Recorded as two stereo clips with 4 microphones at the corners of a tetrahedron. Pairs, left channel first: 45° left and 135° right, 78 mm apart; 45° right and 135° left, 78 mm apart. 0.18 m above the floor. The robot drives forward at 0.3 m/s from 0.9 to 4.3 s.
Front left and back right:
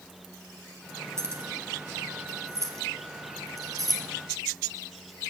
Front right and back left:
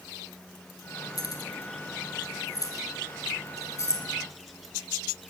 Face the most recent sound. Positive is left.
turn(degrees=-100)